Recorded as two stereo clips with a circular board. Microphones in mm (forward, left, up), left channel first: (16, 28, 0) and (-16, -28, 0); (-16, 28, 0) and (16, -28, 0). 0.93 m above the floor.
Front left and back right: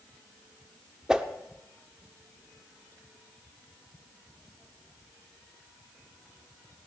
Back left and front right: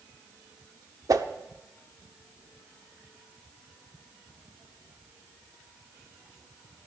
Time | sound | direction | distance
1.1 | a whoosh | 40° right | 1.0 m